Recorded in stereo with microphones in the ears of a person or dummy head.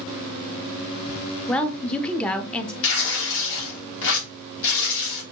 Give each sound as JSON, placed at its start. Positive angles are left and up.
{"t": 1.5, "sound": "a woman speaking", "side_deg": 5, "distance_m": 0.6}
{"t": 2.8, "sound": "tearing paper", "side_deg": 75, "distance_m": 1.2}